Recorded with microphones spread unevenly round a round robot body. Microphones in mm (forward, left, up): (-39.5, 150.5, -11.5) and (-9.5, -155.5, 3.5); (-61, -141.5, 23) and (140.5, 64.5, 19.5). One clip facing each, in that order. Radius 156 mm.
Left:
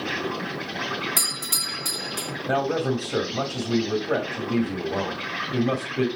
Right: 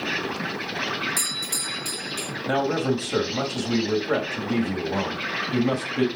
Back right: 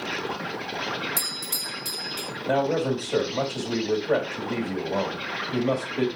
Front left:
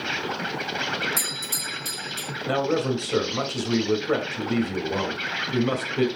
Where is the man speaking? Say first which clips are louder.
Right 1 dB, even; 15° right, 3 m.